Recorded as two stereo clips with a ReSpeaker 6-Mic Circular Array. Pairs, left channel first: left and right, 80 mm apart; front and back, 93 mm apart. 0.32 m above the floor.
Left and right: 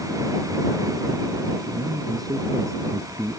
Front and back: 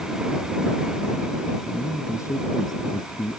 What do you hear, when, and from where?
1.7 s a man speaking: 65° right; by 3.4 s 25° right